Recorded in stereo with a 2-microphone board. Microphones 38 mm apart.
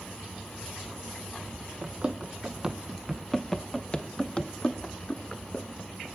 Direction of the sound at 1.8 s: 30° right (ahead or behind).